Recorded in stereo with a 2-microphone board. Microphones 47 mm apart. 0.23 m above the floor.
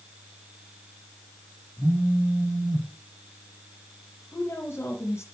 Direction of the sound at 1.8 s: 80° right.